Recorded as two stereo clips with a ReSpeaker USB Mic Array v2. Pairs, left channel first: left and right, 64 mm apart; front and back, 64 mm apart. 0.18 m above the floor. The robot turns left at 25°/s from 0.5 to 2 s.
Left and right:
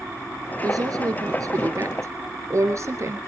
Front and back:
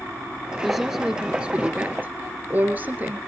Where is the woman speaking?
95° right, 2.5 m; by 3.2 s 130° right, 2.5 m.